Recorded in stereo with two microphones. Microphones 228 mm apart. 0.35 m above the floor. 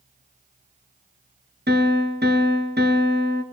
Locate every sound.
1.7 s a piano: 50° right (ahead or behind), 2.5 m